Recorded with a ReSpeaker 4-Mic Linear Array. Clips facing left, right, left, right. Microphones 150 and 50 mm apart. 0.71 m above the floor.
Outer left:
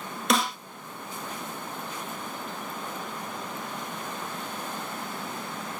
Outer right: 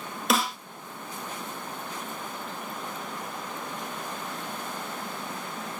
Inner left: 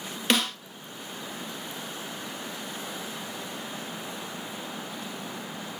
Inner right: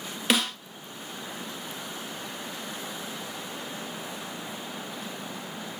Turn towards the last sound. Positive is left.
turn(degrees=0)  # may be behind; listen again after turning